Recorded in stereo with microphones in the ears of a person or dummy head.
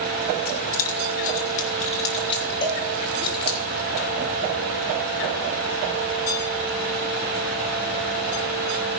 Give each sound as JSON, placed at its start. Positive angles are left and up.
{"t": 0.5, "sound": "keys jangling", "side_deg": 50, "distance_m": 1.3}
{"t": 2.6, "sound": "a cowbell", "side_deg": 45, "distance_m": 1.8}